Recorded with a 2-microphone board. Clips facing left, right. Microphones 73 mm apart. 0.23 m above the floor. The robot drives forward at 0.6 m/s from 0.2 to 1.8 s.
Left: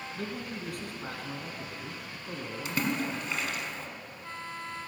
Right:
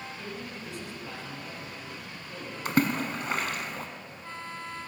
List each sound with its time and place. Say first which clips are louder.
0.1 s a man speaking: left 2 dB; 60° left (ahead or behind), 2.5 m; by 3.4 s 50° left (ahead or behind), 2.5 m
2.6 s a splash: right 5 dB; 50° right (ahead or behind), 1.2 m